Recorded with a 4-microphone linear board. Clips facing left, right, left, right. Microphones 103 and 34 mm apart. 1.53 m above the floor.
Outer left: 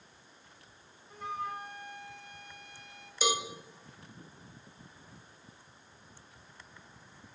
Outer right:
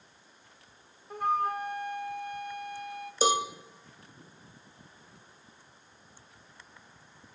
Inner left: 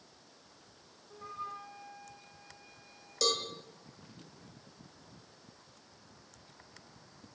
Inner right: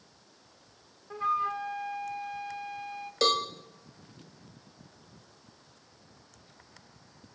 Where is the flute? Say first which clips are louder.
Outer right 9 dB, inner right 14 dB; 55° right (ahead or behind), 0.8 m.